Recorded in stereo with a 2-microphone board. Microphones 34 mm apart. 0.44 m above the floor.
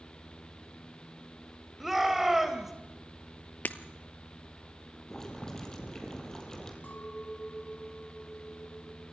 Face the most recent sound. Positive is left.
turn(degrees=65)  # may be behind; listen again after turning